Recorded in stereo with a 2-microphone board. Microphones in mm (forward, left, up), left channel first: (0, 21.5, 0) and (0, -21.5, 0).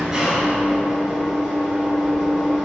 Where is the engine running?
10° right (ahead or behind), 1.4 m.